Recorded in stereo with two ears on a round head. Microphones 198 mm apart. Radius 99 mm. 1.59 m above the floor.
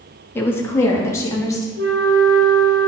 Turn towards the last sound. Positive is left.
turn(degrees=-50)  # may be behind; listen again after turning